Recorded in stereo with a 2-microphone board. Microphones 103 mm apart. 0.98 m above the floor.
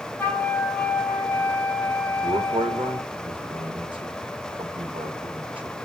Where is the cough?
I don't hear a cough.